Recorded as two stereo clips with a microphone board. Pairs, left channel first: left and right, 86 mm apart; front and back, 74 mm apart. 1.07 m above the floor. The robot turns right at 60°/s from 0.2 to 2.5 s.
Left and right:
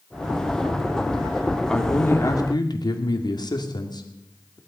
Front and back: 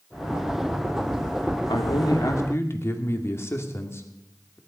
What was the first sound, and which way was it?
A man speaking, 5° left.